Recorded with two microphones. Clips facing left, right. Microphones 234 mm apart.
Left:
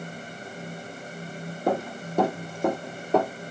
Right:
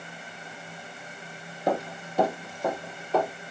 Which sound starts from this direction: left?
Running footsteps, at 1.7 s.